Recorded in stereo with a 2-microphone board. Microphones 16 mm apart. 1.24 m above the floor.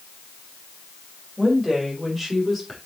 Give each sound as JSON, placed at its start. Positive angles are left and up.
{"t": 1.4, "sound": "a woman speaking", "side_deg": -15, "distance_m": 6.0}